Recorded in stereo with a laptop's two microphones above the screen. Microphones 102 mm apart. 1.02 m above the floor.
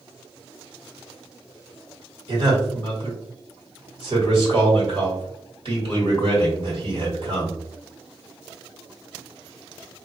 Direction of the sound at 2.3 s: 50° right (ahead or behind).